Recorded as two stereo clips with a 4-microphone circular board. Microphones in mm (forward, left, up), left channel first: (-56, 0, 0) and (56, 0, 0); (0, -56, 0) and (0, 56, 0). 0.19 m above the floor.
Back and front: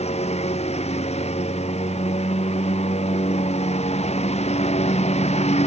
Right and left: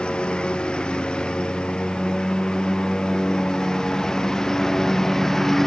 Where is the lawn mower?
170° right; by 5.7 s 175° right.